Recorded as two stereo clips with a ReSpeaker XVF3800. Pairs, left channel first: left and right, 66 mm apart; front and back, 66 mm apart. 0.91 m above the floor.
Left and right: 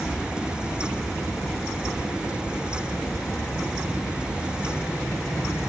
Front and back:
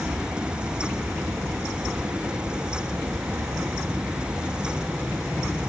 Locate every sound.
0.0 s an aircraft: 150° left; by 5.7 s 155° left